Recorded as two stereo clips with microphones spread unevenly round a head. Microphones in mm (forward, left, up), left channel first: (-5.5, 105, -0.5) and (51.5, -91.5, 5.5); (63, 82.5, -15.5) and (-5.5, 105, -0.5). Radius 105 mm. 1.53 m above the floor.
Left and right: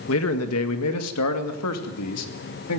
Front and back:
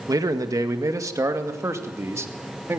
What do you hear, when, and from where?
0.1 s a man speaking: 135° left, 1.8 m; by 2.8 s 110° left, 3 m